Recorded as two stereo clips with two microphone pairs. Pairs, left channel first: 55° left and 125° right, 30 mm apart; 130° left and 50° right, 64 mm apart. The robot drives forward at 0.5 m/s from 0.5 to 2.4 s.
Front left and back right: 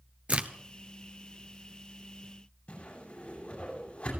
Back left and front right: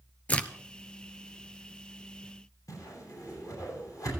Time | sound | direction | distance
0.3 | a crack | 165° right | 1.0 m
2.7 | a whoosh | 105° left | 9 m